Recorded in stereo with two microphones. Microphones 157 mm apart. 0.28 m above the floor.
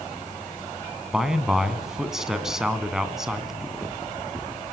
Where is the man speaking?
5° right (ahead or behind), 2.5 m.